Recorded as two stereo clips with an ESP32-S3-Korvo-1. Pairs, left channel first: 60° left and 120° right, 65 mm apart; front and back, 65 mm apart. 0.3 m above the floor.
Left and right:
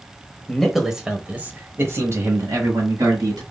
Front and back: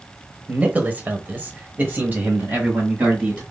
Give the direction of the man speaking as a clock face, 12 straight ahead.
7 o'clock.